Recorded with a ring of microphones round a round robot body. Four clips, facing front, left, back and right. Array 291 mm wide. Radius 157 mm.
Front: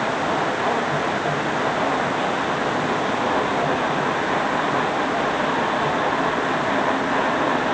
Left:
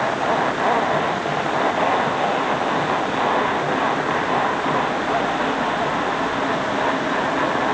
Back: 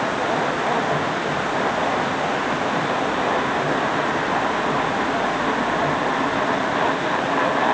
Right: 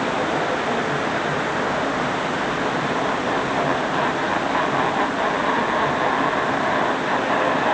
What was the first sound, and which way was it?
Only background noise.